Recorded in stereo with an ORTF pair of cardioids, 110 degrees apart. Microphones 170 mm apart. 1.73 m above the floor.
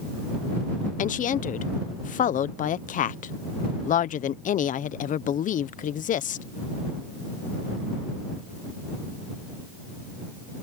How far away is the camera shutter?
No camera shutter in this recording.